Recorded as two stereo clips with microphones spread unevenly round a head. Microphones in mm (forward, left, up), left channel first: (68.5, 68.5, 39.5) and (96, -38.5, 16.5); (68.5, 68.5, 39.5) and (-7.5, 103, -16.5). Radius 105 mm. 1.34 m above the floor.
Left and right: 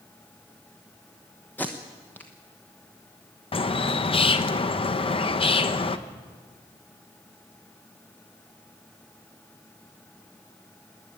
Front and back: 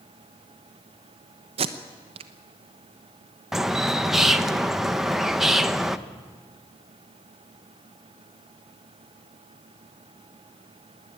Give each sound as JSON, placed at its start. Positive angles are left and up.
{"t": 1.6, "sound": "tape being pulled", "azimuth_deg": -175, "distance_m": 0.8}
{"t": 3.5, "sound": "a bird", "azimuth_deg": 65, "distance_m": 1.1}